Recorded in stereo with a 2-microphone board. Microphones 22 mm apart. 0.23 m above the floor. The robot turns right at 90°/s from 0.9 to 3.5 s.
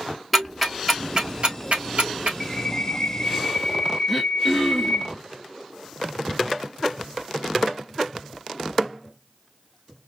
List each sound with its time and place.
0.3 s ticking: centre (ahead or behind), 1.4 m; by 2.3 s 55° right (ahead or behind), 1.4 m
2.4 s a bird: 5° right, 0.9 m; by 5.1 s 95° left, 0.9 m
4.1 s throat clearing: 5° right (ahead or behind), 0.9 m